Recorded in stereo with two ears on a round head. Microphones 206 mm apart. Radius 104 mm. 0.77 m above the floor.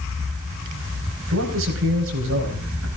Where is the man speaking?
65° right (ahead or behind), 4.5 m.